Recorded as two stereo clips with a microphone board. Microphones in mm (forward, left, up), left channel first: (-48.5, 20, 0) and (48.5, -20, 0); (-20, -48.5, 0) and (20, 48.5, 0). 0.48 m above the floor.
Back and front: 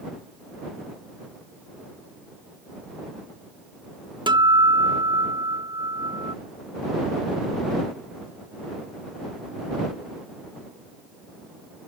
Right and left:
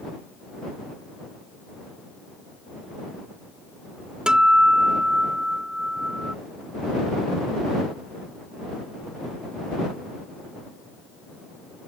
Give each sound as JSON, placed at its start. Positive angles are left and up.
{"t": 4.3, "sound": "a guitar", "azimuth_deg": -10}